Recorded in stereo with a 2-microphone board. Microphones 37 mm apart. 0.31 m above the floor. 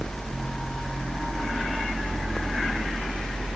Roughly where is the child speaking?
No child speaking in this recording.